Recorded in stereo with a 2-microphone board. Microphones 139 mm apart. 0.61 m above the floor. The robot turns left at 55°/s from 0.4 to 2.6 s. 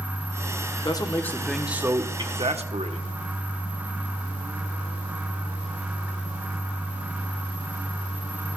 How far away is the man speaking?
About 1.2 m.